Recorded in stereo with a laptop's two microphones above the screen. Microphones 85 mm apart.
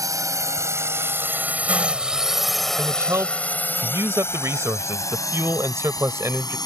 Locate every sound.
0.0 s a drone: 40° right (ahead or behind); by 6.7 s 50° left (ahead or behind)
2.8 s a man speaking: 30° right (ahead or behind)